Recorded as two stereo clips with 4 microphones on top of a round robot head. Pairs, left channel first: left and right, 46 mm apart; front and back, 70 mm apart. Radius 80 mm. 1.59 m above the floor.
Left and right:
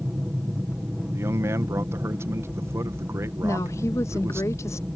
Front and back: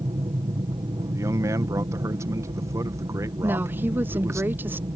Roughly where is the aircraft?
Behind.